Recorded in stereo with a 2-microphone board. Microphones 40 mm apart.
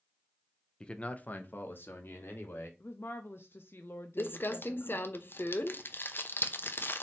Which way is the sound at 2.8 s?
80° left.